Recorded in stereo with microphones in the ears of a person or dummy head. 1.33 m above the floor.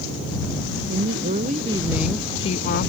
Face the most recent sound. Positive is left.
turn(degrees=55)  # may be behind; listen again after turning